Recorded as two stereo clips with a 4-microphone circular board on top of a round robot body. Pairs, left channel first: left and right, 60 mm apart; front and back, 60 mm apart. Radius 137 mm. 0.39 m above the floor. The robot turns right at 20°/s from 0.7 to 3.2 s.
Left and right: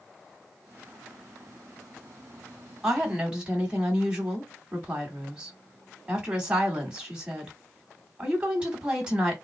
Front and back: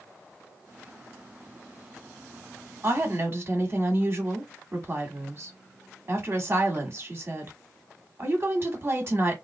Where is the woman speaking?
165° right, 1.7 m; by 9.4 s 155° right, 1.7 m.